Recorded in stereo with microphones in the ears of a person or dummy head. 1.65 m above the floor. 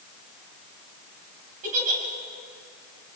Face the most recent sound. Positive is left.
turn(degrees=-45)  # may be behind; listen again after turning